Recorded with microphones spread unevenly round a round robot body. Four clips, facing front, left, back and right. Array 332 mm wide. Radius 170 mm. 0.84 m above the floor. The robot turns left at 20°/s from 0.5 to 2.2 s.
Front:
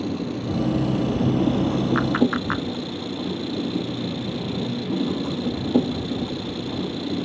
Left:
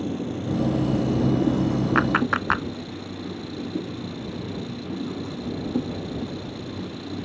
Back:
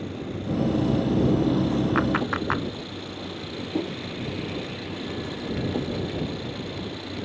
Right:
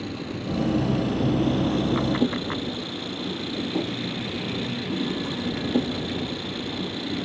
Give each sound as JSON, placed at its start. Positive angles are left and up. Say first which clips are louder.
{"t": 0.0, "sound": "an engine running", "louder": "left 3 dB, front 5 dB", "azimuth_deg": 20}
{"t": 1.9, "sound": "a clap", "louder": "left 2 dB, front 3 dB", "azimuth_deg": 115}